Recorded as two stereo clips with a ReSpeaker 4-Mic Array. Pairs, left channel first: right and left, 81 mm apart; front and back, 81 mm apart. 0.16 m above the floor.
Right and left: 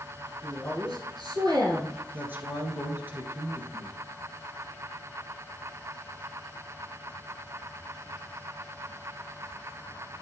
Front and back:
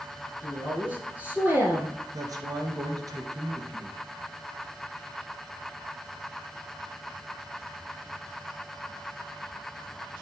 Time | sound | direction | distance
0.4 | a woman speaking | 110° left | 3 m
2.1 | a man speaking | 155° left | 2.0 m